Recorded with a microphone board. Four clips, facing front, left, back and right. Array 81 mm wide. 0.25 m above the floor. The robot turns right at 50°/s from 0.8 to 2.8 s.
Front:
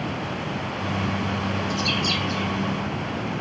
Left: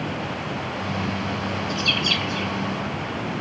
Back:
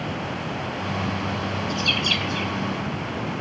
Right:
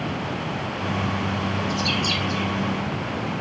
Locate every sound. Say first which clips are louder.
1.7 s a bird: right 1 dB, front 1 dB; 135° left, 0.9 m; by 2.5 s 175° left, 0.9 m